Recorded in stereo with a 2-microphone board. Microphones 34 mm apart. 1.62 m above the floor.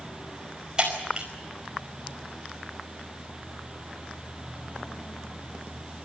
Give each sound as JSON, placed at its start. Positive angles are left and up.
{"t": 0.8, "sound": "breaking glass", "side_deg": -25, "distance_m": 5.0}